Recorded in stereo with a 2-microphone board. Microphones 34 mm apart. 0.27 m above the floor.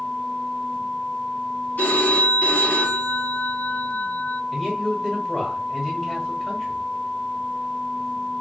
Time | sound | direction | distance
1.8 | a phone ringing | 65° left (ahead or behind) | 1.4 m
4.5 | a man speaking | 15° left (ahead or behind) | 1.4 m